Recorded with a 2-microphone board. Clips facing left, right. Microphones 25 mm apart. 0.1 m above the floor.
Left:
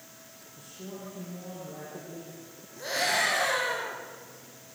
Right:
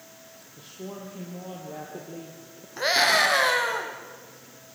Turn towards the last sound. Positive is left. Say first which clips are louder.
# right 7 dB
turn(degrees=-50)  # may be behind; listen again after turning